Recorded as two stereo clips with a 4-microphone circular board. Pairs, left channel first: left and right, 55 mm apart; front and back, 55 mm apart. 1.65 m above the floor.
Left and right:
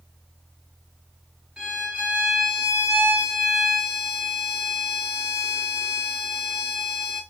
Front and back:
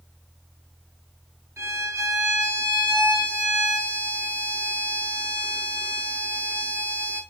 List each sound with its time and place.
1.6 s a violin: 170° right, 2 m